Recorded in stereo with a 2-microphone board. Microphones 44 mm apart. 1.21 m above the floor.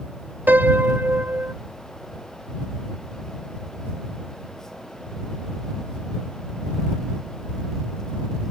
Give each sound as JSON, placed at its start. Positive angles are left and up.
{"t": 0.5, "sound": "a piano", "side_deg": -45}